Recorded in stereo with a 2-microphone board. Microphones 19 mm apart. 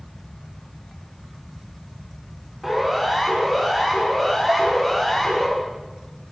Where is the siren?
5° right (ahead or behind), 6.5 m; by 5.5 s 10° left (ahead or behind), 7 m.